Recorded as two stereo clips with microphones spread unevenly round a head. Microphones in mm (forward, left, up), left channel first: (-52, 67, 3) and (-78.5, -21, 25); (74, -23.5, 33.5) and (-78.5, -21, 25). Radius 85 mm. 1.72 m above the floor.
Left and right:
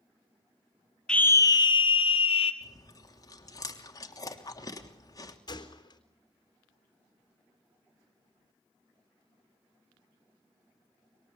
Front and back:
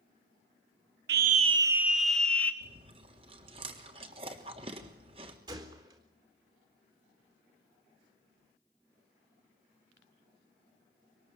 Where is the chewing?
120° left, 3 m.